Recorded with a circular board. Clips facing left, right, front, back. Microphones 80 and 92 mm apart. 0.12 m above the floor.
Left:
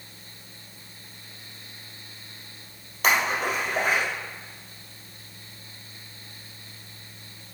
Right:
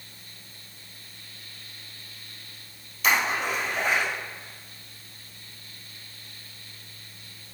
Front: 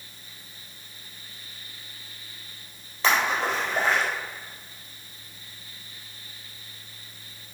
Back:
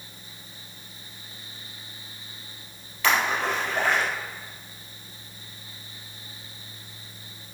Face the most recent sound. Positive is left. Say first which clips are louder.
# left 1 dB, even
turn(degrees=65)